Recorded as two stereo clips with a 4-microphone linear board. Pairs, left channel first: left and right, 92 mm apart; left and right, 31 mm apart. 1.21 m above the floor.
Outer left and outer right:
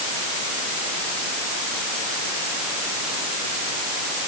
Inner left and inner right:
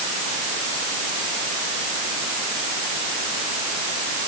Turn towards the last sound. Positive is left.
No sound to turn to.